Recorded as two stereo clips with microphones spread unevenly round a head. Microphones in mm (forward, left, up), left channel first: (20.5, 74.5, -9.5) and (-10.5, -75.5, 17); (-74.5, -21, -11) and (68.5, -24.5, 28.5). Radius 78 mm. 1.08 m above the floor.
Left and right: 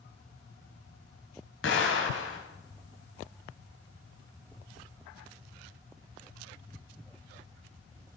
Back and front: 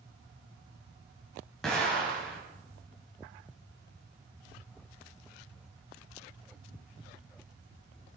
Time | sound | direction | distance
1.6 | an explosion | 90° left | 3.5 m